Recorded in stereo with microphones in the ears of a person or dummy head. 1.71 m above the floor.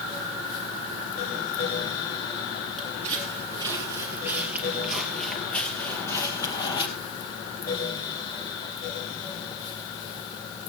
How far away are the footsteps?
About 2.5 m.